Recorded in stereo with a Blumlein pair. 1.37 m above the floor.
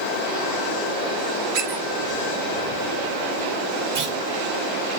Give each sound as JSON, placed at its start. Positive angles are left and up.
{"t": 1.5, "sound": "a squeak", "azimuth_deg": -55, "distance_m": 7.0}
{"t": 4.0, "sound": "a clunk", "azimuth_deg": -60, "distance_m": 5.5}